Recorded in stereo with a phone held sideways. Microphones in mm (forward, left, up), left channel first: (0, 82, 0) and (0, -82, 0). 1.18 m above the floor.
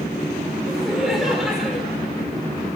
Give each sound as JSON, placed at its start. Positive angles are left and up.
{"t": 0.7, "sound": "laughter", "side_deg": -5, "distance_m": 5.0}